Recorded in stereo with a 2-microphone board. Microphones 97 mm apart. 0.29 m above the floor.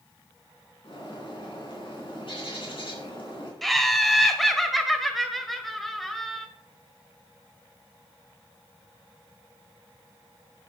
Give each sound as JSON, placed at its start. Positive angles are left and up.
{"t": 0.8, "sound": "a bird", "side_deg": 65, "distance_m": 3.5}
{"t": 3.6, "sound": "laughter", "side_deg": 0, "distance_m": 1.4}